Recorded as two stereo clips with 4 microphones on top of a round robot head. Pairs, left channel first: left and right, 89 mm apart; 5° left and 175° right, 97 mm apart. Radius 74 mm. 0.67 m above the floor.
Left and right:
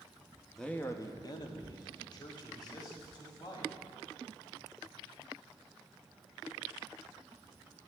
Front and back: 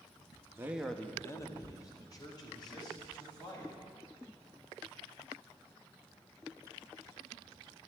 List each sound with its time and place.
0.6 s a man speaking: 175° left, 0.8 m; by 3.7 s 50° left, 5 m